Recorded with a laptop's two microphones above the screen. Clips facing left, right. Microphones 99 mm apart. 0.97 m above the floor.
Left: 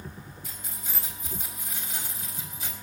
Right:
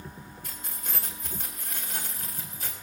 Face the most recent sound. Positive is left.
turn(degrees=-50)  # may be behind; listen again after turning